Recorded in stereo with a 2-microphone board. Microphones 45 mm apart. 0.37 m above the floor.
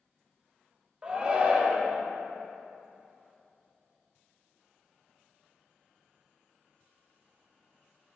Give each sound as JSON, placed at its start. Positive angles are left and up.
{"t": 1.0, "sound": "a shout", "side_deg": -25, "distance_m": 1.2}